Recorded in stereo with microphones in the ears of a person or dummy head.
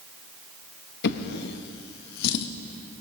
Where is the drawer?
60° left (ahead or behind), 0.9 m.